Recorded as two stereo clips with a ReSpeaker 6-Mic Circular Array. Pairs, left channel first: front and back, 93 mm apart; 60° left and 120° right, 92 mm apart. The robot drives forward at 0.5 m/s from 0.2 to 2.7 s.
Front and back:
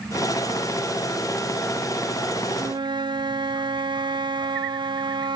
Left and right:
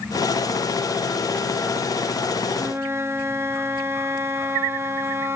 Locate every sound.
2.5 s a flute: 175° right, 0.8 m